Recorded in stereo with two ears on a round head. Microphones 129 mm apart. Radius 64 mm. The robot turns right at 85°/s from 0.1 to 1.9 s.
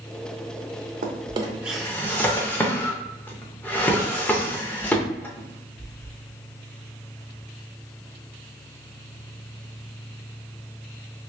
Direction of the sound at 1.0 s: 55° right (ahead or behind).